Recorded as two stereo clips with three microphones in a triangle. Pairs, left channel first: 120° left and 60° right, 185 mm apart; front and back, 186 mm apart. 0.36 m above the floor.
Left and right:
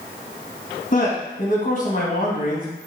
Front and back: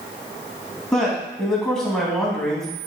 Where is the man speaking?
85° left, 3 m.